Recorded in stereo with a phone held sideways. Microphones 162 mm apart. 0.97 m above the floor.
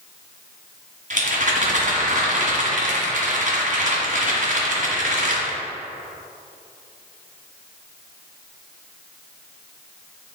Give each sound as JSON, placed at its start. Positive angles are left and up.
{"t": 1.1, "sound": "a rattle", "side_deg": -60, "distance_m": 1.7}